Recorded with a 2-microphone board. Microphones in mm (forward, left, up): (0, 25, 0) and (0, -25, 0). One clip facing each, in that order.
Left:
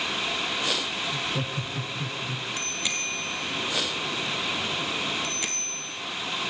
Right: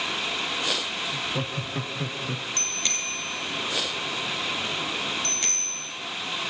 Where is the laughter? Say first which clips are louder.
Even; centre (ahead or behind), 1.0 m; by 2.5 s 55° right (ahead or behind), 1.6 m.